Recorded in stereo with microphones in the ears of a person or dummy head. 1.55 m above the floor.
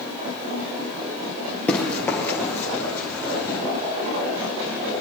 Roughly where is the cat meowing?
I don't hear a cat meowing.